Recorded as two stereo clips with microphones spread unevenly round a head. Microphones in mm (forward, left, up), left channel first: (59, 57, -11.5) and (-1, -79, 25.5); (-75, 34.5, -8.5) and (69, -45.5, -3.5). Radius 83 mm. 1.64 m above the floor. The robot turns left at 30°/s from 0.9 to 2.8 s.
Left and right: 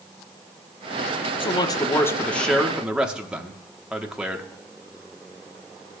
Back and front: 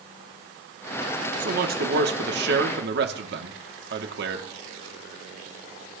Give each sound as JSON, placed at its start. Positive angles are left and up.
{"t": 1.4, "sound": "a man speaking", "azimuth_deg": 5, "distance_m": 1.2}